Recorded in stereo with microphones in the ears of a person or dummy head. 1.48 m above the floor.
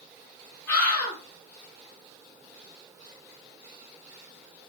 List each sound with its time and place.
0.7 s a scream: 50° left (ahead or behind), 1.7 m